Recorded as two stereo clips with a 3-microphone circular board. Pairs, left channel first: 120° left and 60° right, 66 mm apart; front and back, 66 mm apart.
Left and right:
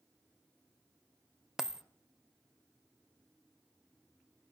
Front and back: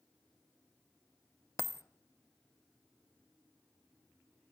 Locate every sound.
1.6 s a dropped coin: 20° left, 0.6 m